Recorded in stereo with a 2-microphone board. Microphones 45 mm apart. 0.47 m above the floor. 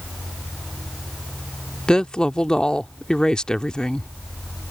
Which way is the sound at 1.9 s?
15° left (ahead or behind).